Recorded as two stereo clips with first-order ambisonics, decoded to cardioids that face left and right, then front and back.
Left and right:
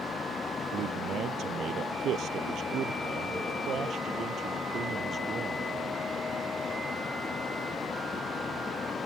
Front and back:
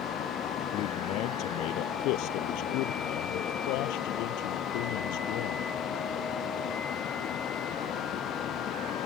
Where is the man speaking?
40° right; by 5.7 s 20° right.